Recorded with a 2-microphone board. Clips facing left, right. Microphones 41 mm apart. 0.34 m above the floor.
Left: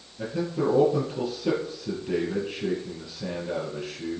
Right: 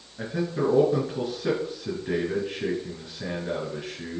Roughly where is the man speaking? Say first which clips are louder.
Even; right.